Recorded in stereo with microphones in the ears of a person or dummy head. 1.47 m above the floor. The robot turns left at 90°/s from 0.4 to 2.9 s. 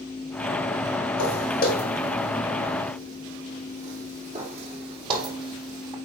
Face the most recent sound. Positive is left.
turn(degrees=-25)  # may be behind; listen again after turning